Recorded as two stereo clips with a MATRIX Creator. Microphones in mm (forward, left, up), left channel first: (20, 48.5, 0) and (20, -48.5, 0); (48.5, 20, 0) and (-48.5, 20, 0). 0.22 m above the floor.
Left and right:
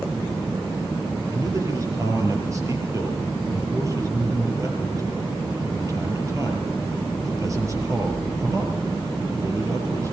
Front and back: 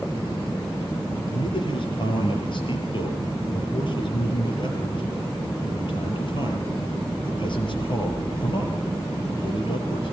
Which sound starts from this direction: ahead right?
A man speaking, at 1.3 s.